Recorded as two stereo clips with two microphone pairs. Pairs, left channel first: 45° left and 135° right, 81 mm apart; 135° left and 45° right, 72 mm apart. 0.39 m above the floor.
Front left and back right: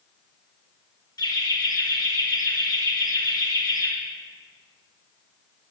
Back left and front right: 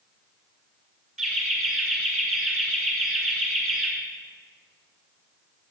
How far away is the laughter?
About 1.8 m.